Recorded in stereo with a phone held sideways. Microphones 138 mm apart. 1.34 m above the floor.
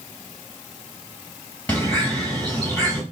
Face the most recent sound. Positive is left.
turn(degrees=10)  # may be behind; listen again after turning